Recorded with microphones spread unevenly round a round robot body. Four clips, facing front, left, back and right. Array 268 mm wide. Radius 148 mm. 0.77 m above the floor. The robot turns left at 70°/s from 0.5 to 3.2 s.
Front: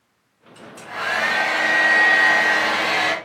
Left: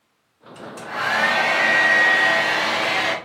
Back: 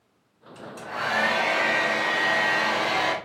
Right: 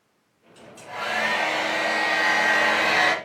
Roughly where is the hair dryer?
Behind left.